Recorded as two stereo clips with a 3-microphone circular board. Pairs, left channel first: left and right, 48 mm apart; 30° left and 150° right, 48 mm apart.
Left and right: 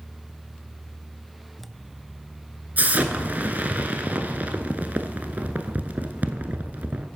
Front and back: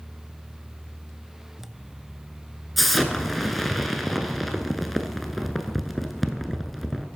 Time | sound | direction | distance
2.8 | an explosion | 60° right | 0.8 m